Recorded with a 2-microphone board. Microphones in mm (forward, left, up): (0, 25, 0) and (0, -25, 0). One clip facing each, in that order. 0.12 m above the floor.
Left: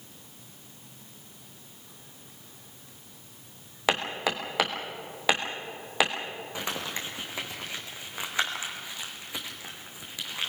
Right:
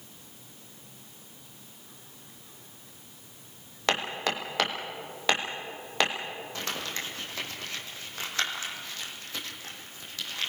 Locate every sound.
3.9 s hammering: 5° left (ahead or behind), 3 m
6.5 s crumpling: 15° left (ahead or behind), 3 m